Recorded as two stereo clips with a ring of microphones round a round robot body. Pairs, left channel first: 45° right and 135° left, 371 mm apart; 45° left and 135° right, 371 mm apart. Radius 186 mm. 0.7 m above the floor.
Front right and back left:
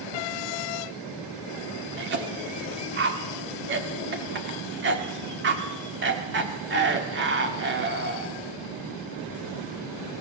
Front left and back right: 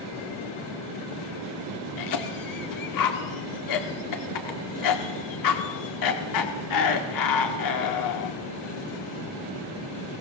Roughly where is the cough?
Left.